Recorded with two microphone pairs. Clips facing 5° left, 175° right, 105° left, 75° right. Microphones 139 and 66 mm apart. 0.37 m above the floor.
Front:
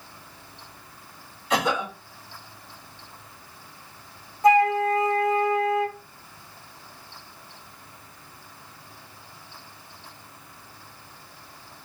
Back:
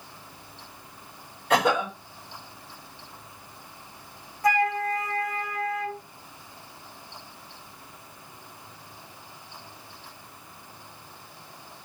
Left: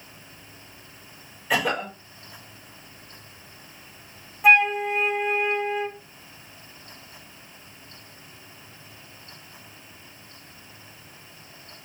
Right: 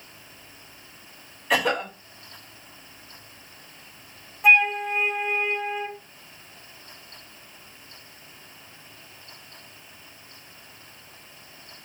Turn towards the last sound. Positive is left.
turn(degrees=25)